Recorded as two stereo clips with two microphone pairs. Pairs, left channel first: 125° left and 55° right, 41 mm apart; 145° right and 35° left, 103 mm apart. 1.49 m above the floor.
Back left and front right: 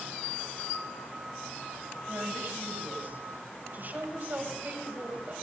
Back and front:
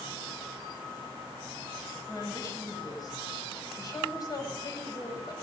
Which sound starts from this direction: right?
A woman speaking, at 2.1 s.